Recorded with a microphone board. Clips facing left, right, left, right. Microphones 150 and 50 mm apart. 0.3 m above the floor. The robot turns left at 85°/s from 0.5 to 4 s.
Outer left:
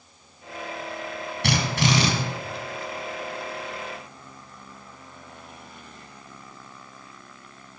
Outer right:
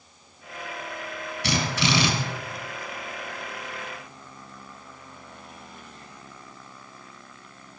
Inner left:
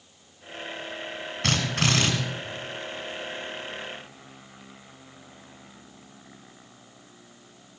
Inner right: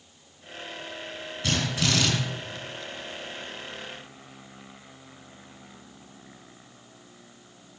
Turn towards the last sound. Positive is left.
turn(degrees=-115)